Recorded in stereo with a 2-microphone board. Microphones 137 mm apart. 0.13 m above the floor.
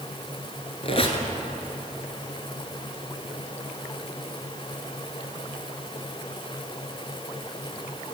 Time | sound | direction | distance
0.8 | a squeak | 45° left (ahead or behind) | 1.2 m